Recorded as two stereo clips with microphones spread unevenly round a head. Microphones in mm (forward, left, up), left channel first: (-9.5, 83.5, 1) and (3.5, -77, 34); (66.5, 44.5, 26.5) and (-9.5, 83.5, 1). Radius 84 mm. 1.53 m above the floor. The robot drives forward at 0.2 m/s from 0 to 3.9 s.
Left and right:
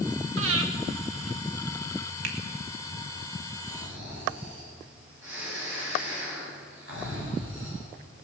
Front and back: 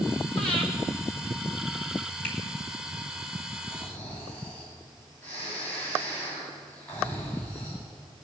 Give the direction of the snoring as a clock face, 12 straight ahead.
3 o'clock.